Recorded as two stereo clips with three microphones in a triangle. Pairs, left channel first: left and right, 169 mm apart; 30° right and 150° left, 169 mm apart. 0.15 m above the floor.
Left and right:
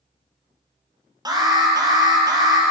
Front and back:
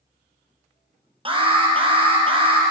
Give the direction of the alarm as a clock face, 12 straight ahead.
5 o'clock.